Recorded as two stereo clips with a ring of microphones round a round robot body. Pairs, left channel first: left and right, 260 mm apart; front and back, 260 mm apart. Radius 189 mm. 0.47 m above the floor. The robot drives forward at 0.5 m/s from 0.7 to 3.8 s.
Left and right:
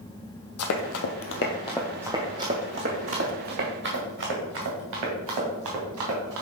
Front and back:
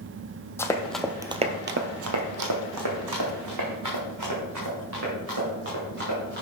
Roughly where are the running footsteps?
Left.